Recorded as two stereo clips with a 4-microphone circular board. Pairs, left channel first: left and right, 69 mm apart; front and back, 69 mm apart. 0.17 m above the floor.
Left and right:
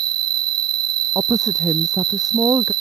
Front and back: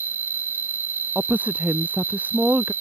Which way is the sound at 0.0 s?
115° right.